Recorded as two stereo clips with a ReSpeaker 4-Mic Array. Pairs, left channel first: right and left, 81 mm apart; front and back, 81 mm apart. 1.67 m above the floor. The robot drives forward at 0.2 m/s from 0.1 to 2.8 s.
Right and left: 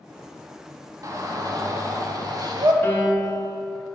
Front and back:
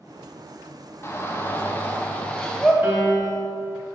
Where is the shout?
55° left, 0.8 m; by 2.7 s 80° left, 0.7 m.